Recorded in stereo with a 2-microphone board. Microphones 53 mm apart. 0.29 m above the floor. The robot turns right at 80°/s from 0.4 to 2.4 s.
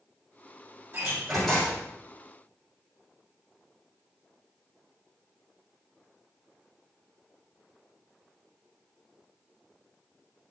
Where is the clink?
I don't hear a clink.